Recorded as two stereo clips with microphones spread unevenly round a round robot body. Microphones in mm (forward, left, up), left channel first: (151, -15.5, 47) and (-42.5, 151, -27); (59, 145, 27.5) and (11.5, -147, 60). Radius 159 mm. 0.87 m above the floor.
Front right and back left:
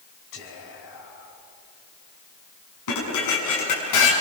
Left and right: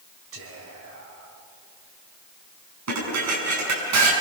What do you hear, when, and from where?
0.3 s whispering: 55° right, 5 m
2.9 s dishes clattering: 65° right, 5.5 m